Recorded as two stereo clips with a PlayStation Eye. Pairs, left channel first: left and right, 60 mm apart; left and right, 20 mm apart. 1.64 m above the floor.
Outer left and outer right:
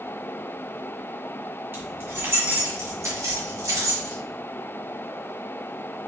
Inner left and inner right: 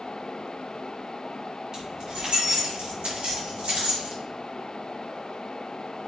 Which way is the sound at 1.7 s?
35° right (ahead or behind).